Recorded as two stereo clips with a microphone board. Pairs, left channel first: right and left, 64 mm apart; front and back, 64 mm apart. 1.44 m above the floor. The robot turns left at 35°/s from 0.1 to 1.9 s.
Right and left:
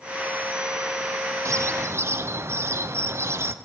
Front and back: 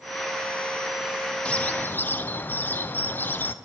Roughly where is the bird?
Ahead left.